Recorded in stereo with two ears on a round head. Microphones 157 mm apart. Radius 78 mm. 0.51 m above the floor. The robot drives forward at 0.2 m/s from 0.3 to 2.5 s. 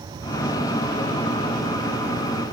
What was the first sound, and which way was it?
Only background noise.